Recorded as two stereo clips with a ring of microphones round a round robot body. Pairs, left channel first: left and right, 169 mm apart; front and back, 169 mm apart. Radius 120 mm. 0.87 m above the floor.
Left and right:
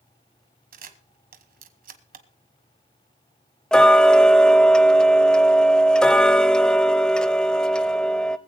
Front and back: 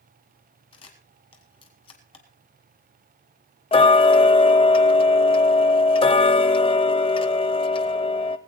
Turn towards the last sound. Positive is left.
turn(degrees=10)